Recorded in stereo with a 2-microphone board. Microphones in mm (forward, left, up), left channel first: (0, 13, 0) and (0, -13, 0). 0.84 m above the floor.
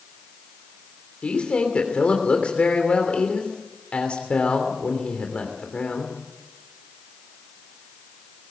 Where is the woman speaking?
55° left (ahead or behind), 3 m.